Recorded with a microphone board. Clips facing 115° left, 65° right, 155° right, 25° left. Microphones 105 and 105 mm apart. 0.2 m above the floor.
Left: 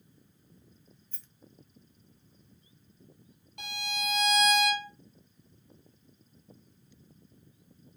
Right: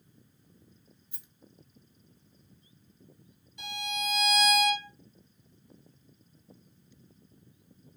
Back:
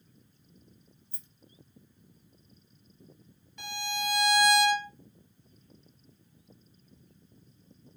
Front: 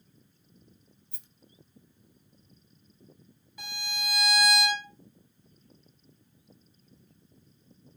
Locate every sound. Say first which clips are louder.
1.1 s a rattle: even, back 2 dB; 10° left, 0.5 m
3.6 s a violin: right 1 dB, back 6 dB; 105° left, 1.1 m